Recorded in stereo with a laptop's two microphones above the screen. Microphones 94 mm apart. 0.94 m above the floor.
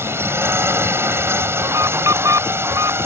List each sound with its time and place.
0.0 s a drone: 25° right (ahead or behind)
1.6 s an alarm: 35° right (ahead or behind)